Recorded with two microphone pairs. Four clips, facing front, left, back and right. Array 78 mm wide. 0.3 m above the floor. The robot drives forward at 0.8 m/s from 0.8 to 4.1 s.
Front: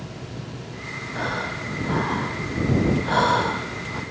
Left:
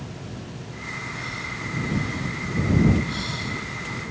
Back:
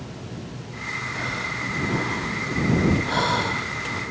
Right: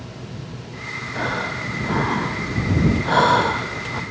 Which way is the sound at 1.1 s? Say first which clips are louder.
Right 8 dB, front 5 dB; 55° right.